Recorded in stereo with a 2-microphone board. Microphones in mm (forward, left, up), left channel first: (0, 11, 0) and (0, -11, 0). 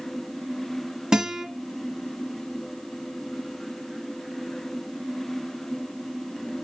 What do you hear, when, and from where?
1.1 s a guitar: 45° right (ahead or behind), 1.0 m